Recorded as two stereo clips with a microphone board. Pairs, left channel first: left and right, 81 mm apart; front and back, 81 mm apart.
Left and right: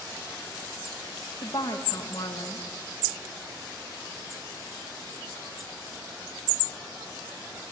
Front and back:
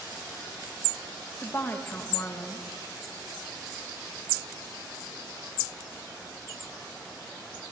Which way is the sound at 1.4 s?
60° left.